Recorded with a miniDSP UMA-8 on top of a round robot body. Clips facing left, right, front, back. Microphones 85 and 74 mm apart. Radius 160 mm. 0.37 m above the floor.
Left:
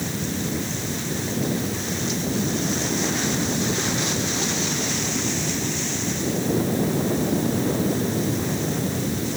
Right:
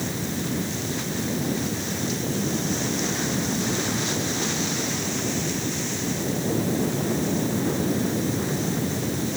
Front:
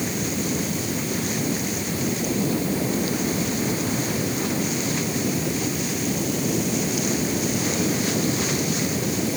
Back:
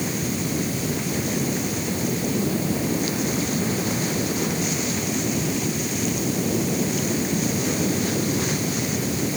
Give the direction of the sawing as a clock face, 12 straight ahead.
I don't hear sawing.